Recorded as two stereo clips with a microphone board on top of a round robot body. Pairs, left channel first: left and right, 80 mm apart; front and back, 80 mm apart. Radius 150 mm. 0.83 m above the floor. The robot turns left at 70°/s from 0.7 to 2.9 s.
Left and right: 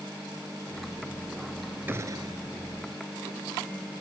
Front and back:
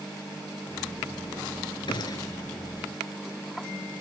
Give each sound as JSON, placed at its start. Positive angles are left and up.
{"t": 1.9, "sound": "a gunshot", "azimuth_deg": -25}